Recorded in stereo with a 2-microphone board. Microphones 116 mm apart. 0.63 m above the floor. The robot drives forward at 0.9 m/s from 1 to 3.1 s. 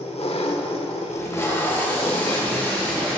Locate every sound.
0.0 s an engine running: 65° left (ahead or behind), 0.8 m; by 3.2 s 25° left (ahead or behind), 1.7 m
1.1 s tape being pulled: 25° left (ahead or behind), 1.7 m; by 3.2 s 10° left (ahead or behind), 3.5 m